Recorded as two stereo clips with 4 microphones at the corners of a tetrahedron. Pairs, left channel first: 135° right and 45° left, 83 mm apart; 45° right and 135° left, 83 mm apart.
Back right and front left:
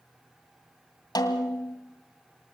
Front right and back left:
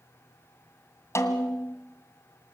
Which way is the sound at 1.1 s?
100° right.